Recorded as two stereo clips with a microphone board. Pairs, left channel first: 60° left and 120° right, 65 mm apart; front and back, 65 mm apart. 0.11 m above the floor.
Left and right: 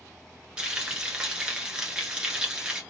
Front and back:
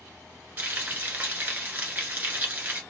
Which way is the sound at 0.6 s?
175° right.